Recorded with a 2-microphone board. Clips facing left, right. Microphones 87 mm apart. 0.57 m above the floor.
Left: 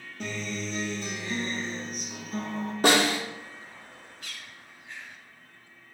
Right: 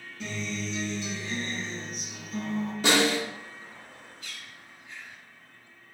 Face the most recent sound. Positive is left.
turn(degrees=65)  # may be behind; listen again after turning